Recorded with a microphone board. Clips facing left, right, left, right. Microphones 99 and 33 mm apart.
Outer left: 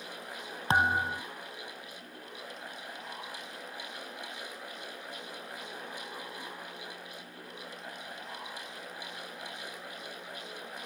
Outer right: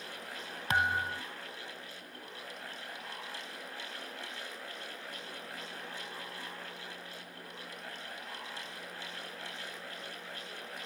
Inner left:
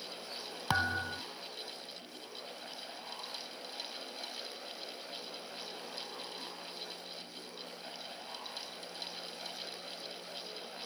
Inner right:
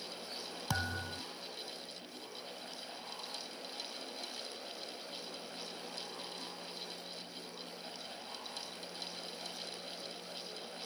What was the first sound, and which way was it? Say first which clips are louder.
A thud: outer left 4 dB, inner left 6 dB; 30° left (ahead or behind).